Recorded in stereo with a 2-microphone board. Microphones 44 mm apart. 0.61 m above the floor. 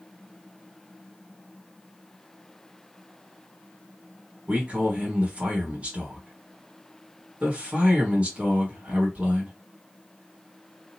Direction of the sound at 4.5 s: 30° right (ahead or behind).